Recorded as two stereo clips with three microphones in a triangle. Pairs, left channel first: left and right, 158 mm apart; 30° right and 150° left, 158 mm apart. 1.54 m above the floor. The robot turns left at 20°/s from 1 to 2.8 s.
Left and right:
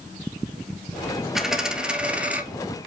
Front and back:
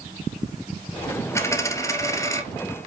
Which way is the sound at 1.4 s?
5° right.